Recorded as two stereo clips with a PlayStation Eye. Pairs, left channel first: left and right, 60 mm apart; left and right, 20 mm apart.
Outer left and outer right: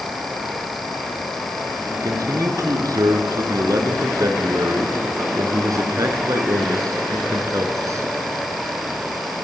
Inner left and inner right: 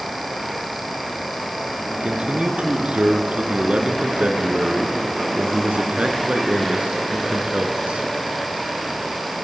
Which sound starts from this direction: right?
A man speaking, at 1.9 s.